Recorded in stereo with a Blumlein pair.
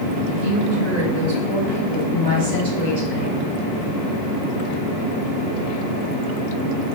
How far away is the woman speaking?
About 2.5 m.